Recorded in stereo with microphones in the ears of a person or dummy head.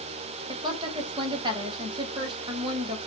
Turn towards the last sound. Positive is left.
turn(degrees=-30)  # may be behind; listen again after turning